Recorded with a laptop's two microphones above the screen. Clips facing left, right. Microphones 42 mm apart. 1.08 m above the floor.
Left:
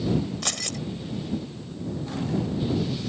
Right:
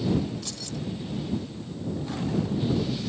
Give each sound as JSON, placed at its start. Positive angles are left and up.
{"t": 0.4, "sound": "keys jangling", "side_deg": 75}